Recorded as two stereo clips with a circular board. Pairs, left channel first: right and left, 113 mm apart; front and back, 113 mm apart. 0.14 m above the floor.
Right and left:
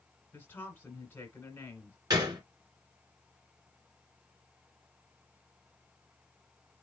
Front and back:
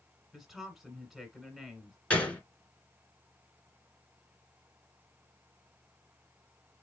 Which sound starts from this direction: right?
A woman speaking, at 0.3 s.